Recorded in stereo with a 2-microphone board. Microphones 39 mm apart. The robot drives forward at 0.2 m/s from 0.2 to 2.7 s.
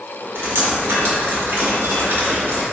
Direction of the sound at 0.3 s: 75° right (ahead or behind).